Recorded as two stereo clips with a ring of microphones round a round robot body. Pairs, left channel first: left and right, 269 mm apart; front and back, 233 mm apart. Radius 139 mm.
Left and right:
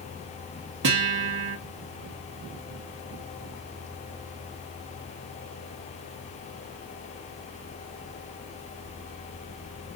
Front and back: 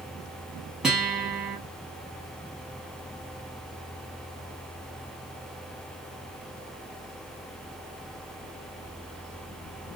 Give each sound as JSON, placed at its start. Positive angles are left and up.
{"t": 0.8, "sound": "a guitar", "azimuth_deg": -95, "distance_m": 1.0}